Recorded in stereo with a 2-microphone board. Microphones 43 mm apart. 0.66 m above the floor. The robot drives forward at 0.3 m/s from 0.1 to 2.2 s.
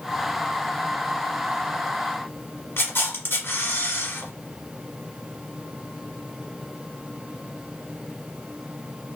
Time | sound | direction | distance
2.8 | a camera shutter | 55° left (ahead or behind) | 1.0 m